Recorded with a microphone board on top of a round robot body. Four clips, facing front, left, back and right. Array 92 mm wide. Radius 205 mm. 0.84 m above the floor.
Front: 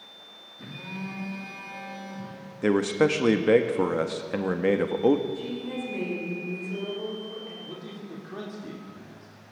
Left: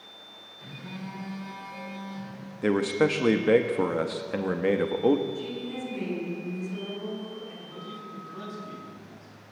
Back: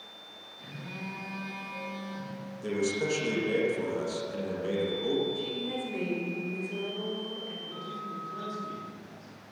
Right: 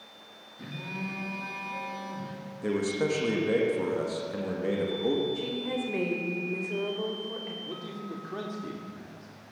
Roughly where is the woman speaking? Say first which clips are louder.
Right 2 dB, front 1 dB; right.